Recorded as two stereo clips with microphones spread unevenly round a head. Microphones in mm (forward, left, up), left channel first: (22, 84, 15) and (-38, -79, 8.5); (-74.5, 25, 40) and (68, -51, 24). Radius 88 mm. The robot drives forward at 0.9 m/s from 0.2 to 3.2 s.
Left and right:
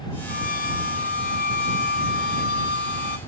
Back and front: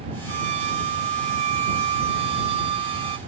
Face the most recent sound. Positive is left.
turn(degrees=35)